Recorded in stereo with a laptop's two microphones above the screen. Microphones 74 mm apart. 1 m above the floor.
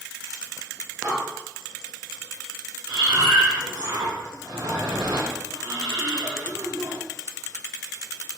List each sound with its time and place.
1.0 s breathing: 50° right (ahead or behind), 4.5 m
2.9 s breathing: 65° right (ahead or behind), 3 m